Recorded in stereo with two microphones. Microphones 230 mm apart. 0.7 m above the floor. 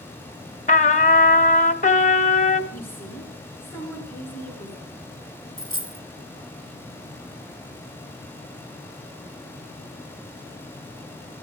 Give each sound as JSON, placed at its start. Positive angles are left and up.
{"t": 0.7, "sound": "a trumpet", "side_deg": 30, "distance_m": 1.1}
{"t": 2.7, "sound": "a woman speaking", "side_deg": 10, "distance_m": 7.0}
{"t": 5.6, "sound": "a dropped coin", "side_deg": -55, "distance_m": 1.2}